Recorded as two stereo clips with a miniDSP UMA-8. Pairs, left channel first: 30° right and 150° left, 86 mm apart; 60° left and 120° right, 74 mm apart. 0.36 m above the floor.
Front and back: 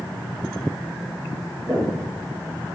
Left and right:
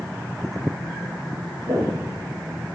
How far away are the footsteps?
About 1.1 m.